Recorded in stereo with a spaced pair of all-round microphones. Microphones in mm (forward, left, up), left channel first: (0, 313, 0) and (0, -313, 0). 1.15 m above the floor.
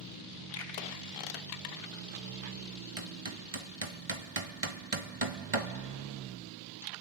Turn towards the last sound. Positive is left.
turn(degrees=-55)  # may be behind; listen again after turning